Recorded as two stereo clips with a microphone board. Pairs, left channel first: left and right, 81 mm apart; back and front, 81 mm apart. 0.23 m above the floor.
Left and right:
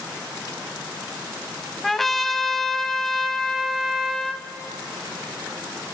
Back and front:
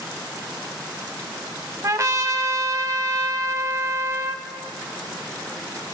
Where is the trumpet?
5° left, 0.7 m.